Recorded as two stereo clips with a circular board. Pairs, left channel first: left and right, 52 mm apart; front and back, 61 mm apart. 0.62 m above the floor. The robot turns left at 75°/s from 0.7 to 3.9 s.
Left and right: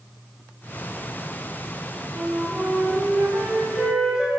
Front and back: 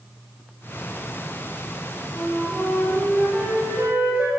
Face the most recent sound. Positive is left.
turn(degrees=-155)